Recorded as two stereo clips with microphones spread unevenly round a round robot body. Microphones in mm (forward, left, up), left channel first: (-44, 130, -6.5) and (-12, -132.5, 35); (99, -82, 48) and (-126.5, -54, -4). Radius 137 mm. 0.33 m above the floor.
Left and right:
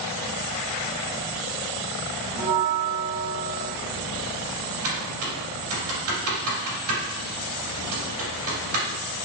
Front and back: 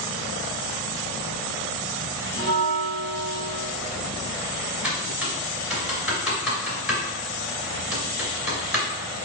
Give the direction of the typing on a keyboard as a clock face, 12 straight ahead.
3 o'clock.